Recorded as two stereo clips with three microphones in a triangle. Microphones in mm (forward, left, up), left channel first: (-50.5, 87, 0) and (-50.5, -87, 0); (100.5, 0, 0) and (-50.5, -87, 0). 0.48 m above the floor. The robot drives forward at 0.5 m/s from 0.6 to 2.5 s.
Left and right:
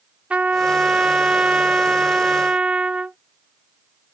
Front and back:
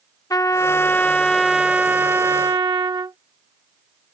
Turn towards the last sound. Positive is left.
turn(degrees=-165)